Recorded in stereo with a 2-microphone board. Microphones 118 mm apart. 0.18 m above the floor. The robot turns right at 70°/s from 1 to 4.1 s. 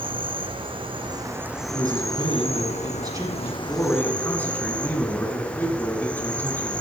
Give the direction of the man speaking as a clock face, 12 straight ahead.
5 o'clock.